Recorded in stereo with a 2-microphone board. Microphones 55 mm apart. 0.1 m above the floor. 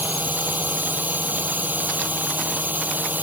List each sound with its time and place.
0.0 s a drone: 35° right (ahead or behind)